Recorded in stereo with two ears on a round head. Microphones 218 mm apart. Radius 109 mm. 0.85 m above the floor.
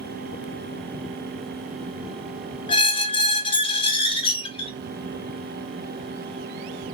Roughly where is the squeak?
Left.